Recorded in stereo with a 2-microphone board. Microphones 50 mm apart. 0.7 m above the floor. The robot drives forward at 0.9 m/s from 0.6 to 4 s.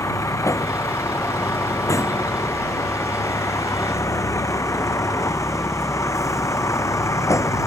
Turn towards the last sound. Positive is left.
turn(degrees=80)